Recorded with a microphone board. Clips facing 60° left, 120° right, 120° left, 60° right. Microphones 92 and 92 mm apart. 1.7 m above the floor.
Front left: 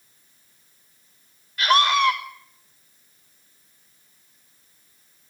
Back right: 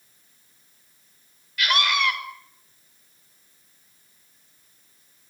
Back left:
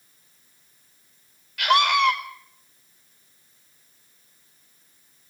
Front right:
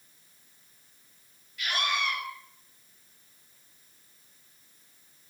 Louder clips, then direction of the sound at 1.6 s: Front left 5 dB, back left 12 dB; 115° left.